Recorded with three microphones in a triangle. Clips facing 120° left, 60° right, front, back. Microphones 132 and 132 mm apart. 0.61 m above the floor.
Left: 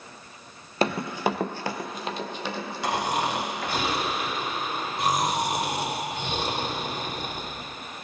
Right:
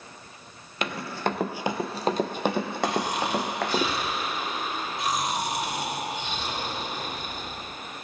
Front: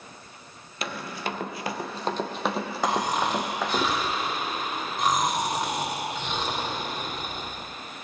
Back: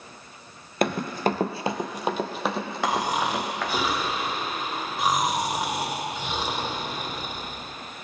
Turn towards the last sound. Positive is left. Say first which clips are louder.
# left 3 dB, even
turn(degrees=100)